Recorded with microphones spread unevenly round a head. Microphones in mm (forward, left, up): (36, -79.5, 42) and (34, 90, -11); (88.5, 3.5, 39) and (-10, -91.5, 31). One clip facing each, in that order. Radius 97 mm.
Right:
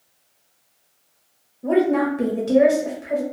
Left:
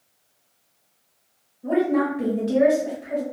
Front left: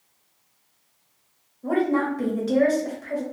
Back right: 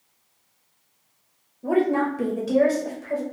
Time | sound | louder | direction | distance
1.6 | a woman speaking | right 3 dB, back right 1 dB | 75° right | 1.1 m